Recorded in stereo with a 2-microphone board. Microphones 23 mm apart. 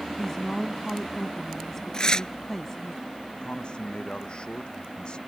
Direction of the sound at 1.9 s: 35° left (ahead or behind).